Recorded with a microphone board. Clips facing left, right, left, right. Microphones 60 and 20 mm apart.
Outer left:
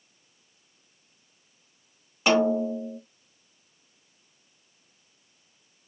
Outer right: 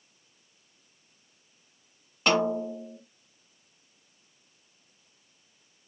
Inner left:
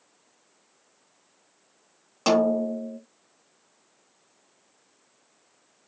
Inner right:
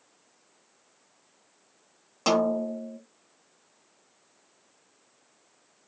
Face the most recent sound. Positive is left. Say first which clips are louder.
# outer left 3 dB, inner left 3 dB
turn(degrees=5)  # may be behind; listen again after turning